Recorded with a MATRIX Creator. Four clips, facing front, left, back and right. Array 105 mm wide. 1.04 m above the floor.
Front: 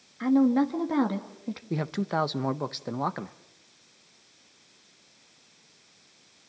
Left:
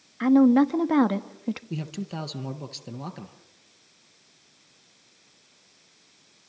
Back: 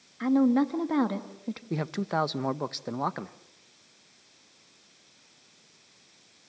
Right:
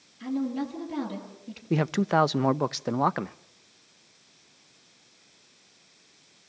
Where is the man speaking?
90° right, 0.7 m.